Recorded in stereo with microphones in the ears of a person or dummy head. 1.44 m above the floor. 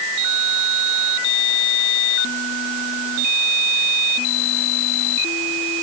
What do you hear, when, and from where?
Only background noise.